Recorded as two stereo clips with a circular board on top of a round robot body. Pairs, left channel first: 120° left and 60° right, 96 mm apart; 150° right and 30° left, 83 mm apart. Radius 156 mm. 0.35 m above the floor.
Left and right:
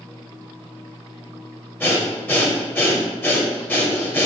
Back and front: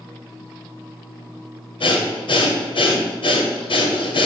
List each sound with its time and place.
1.8 s breathing: 170° right, 1.1 m